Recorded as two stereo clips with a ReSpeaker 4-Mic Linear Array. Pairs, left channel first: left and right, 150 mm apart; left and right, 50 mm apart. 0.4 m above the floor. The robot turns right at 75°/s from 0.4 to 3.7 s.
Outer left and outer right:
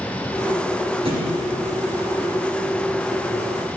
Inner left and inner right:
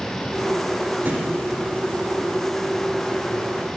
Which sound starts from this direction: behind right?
A thud, at 1.1 s.